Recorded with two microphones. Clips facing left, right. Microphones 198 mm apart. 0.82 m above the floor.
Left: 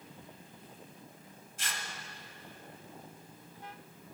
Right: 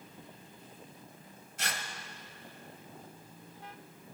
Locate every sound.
1.6 s tearing paper: 70° right (ahead or behind), 1.3 m